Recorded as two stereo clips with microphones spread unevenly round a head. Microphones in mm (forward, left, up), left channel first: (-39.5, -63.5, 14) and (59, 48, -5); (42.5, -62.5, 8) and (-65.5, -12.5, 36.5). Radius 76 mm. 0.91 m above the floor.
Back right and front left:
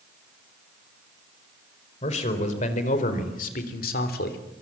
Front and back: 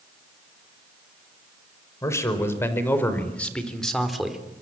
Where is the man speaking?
85° right, 5 m; by 4.4 s 115° right, 3.5 m.